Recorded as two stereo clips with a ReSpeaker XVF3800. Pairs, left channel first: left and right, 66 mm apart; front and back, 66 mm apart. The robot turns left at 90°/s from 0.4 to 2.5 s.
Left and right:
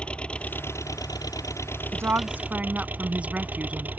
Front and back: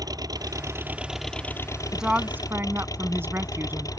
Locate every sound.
0.0 s an engine running: 165° left; by 4.0 s 25° right
1.9 s a woman speaking: 95° right; by 3.9 s 145° right